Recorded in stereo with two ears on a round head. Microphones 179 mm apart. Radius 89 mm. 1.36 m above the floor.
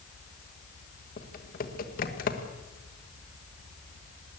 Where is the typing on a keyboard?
45° left (ahead or behind), 1.6 m.